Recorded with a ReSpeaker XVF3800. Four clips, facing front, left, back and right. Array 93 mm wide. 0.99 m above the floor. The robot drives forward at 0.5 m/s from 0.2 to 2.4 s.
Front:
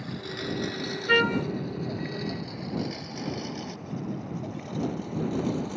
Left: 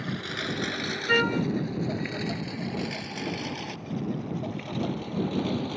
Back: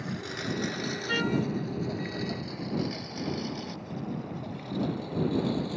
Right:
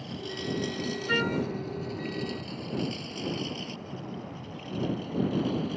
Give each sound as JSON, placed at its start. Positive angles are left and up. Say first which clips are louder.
{"t": 0.0, "sound": "a lawn mower", "louder": "left 3 dB, even", "azimuth_deg": 105}
{"t": 1.1, "sound": "a trumpet", "louder": "left 4 dB, front 6 dB", "azimuth_deg": 30}